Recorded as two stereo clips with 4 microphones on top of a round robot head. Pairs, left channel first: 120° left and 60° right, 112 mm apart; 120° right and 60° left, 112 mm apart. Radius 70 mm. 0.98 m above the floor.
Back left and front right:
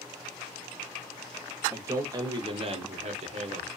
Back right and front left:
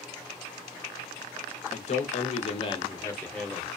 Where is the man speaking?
125° right, 0.9 m; by 3.7 s 30° right, 0.8 m.